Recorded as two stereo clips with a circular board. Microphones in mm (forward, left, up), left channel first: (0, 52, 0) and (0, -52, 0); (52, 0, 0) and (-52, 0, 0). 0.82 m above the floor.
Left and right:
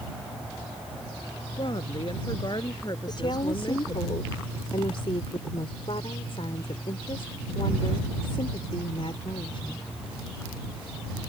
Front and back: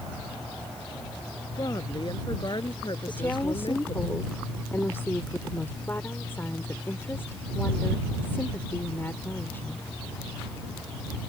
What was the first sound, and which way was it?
A woman speaking, 50° left.